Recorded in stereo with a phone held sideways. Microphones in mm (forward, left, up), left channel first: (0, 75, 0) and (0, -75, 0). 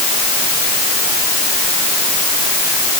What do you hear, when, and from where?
Only background noise.